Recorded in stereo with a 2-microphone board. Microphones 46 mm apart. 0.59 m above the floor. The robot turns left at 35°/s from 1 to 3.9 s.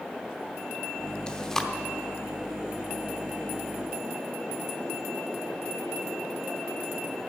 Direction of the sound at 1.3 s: 25° left (ahead or behind).